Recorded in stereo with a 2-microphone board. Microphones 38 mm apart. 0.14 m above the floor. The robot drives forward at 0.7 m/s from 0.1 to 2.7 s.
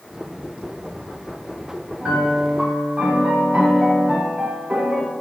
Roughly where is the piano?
Right.